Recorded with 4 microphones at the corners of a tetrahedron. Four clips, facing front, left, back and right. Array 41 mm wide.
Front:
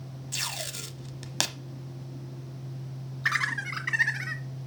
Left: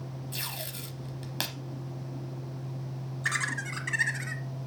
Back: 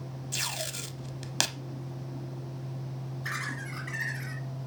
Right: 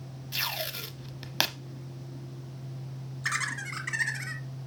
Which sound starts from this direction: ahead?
Laughter, at 3.2 s.